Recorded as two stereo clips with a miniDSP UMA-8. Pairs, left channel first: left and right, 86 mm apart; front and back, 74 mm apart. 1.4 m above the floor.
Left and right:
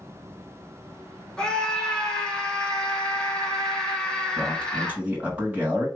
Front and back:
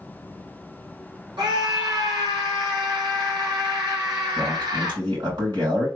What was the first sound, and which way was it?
A scream, 170° left.